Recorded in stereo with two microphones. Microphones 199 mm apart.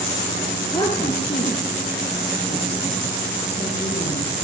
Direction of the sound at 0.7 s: 20° left (ahead or behind).